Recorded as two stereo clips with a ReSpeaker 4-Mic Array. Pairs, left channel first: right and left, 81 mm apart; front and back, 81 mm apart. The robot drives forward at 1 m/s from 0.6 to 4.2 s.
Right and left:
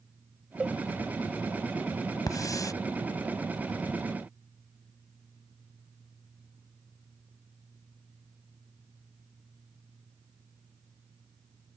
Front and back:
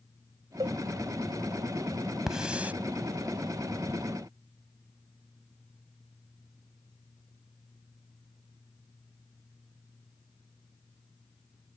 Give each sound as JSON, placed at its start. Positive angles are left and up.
{"t": 0.6, "sound": "a cowbell", "azimuth_deg": 170}
{"t": 2.3, "sound": "a hiss", "azimuth_deg": -100}